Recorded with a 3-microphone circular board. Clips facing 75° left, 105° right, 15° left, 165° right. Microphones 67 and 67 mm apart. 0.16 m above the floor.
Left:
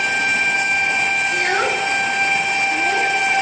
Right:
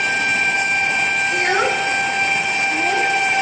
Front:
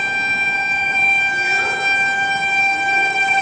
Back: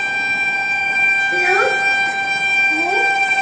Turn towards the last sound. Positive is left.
turn(degrees=170)